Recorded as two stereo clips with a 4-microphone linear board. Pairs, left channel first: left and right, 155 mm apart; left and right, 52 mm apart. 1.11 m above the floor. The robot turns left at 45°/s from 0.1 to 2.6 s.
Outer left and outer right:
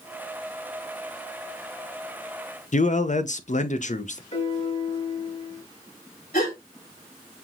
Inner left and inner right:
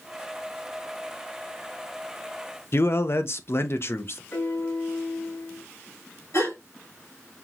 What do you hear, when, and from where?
2.7 s a man speaking: 50° left (ahead or behind), 0.5 m
4.3 s a piano: 45° left (ahead or behind), 2 m
6.3 s a gasp: 65° left (ahead or behind), 4 m